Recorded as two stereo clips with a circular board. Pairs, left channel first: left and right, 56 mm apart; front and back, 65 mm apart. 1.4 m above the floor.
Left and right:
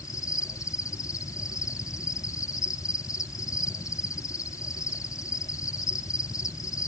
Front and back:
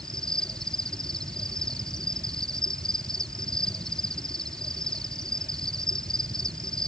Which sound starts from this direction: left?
An insect, at 0.0 s.